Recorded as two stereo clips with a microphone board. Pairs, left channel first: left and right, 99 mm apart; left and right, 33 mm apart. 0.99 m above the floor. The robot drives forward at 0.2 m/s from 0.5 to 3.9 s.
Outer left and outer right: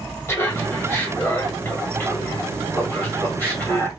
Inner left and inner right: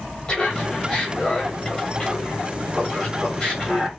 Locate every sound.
0.3 s laughter: 25° left (ahead or behind), 1.4 m; by 3.9 s 15° left (ahead or behind), 2 m